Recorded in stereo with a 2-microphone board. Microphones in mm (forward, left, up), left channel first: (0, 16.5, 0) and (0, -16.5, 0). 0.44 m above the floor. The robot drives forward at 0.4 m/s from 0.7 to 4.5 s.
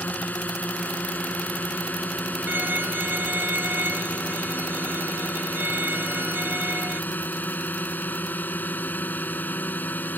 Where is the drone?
60° left (ahead or behind); by 10.2 s 65° left (ahead or behind).